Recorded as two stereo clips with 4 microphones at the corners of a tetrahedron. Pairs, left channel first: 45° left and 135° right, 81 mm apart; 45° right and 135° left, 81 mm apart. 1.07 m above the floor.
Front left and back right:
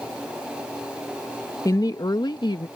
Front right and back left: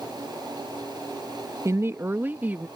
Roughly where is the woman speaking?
Left.